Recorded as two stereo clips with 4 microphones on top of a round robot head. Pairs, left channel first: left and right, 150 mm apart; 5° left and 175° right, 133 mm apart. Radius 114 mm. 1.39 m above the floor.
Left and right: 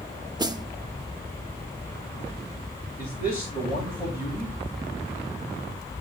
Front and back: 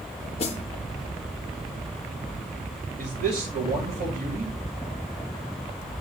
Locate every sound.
0.4 s a snare drum: 30° right, 0.7 m
3.0 s a man speaking: 170° right, 2 m